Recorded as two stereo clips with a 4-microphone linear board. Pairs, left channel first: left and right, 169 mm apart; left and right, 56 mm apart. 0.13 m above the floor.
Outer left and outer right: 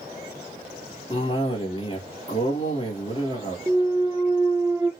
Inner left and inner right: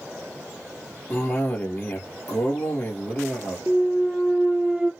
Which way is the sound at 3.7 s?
15° right (ahead or behind).